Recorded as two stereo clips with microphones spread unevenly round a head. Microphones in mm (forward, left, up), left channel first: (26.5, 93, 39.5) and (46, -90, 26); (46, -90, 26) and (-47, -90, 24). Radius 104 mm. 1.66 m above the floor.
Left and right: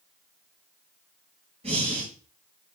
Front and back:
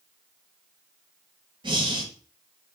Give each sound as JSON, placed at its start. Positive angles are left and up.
{"t": 1.6, "sound": "breathing", "azimuth_deg": -145, "distance_m": 2.5}